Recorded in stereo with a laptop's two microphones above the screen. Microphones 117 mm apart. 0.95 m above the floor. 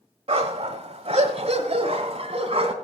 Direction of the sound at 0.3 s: 55° right (ahead or behind).